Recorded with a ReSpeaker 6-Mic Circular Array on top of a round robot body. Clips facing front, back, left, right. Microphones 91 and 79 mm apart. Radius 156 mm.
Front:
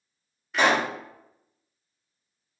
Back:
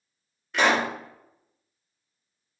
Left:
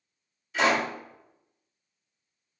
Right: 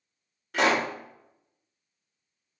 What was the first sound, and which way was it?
A pop, 85° right.